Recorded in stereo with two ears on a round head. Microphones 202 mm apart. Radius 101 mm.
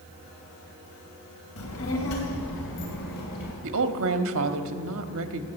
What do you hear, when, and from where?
1.6 s a child speaking: 70° left (ahead or behind), 2.5 m; by 3.5 s 40° left (ahead or behind), 2.5 m
3.6 s a woman speaking: 65° right (ahead or behind), 1.2 m